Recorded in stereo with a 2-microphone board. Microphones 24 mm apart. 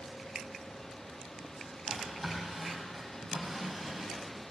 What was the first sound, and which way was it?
A drawer, centre (ahead or behind).